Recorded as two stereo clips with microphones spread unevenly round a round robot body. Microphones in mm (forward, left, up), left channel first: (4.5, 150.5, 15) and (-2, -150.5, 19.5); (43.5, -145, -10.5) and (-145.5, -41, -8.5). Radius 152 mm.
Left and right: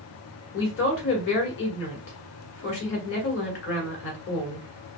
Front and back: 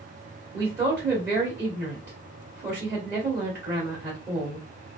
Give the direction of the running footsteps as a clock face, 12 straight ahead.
No running footsteps in this recording.